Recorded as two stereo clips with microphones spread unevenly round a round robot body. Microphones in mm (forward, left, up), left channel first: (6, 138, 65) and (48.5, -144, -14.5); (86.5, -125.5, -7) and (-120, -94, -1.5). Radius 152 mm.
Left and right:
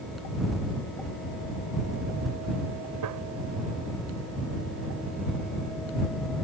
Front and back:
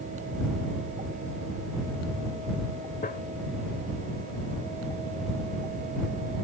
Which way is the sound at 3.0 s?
50° right.